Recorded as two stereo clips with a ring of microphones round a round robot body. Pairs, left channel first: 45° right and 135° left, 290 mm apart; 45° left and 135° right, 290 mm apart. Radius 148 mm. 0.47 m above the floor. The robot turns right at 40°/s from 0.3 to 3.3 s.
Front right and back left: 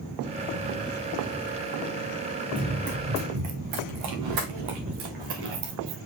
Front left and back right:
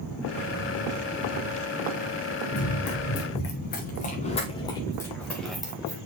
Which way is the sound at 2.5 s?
55° left.